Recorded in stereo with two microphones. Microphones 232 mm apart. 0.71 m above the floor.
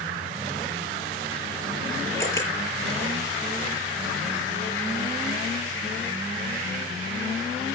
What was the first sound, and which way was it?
A camera shutter, 60° left (ahead or behind).